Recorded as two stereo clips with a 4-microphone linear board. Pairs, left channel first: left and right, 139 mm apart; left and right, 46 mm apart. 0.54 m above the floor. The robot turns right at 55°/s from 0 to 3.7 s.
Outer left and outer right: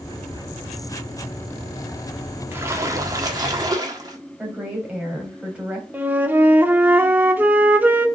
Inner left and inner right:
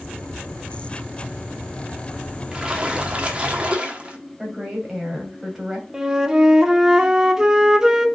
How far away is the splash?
About 1.3 m.